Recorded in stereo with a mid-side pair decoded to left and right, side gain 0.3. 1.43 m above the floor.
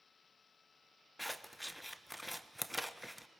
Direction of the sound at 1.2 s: 5° left.